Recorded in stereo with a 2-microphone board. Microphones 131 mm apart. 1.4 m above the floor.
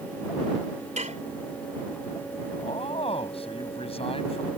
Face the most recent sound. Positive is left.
turn(degrees=45)  # may be behind; listen again after turning